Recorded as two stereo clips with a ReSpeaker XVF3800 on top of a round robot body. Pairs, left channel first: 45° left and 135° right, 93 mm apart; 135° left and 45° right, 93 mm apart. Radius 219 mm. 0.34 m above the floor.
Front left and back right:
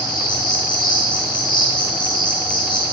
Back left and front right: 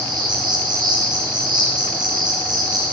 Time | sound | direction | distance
0.0 | an insect | straight ahead | 9 m